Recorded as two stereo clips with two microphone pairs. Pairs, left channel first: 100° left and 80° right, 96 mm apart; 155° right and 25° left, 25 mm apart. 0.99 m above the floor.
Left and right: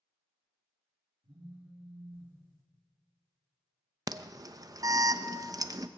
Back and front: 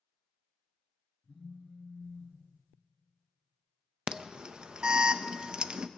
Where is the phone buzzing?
90° right, 5 m.